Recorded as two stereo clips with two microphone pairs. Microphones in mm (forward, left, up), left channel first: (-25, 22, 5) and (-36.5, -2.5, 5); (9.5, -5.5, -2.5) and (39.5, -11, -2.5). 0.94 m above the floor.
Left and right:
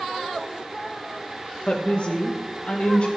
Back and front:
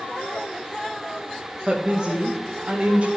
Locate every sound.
1.7 s a woman speaking: 40° left, 1.1 m